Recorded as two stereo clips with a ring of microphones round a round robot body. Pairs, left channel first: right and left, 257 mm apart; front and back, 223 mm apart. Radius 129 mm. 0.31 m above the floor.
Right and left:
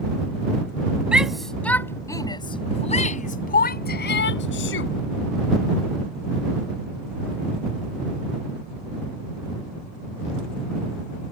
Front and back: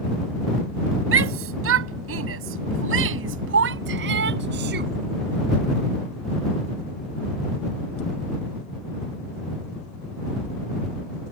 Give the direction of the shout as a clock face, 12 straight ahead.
6 o'clock.